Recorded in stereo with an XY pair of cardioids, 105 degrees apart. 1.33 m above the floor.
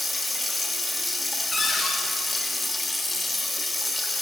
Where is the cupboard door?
20° left, 2.0 m.